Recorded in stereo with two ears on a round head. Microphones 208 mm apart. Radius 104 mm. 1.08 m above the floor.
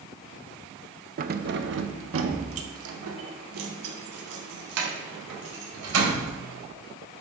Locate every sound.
1.2 s keys jangling: 35° right (ahead or behind), 0.6 m; by 6.3 s 75° right (ahead or behind), 4 m